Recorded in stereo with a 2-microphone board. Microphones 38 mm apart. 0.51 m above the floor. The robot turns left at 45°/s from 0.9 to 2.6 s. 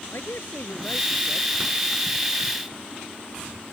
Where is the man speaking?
80° left; by 1.6 s 55° left (ahead or behind).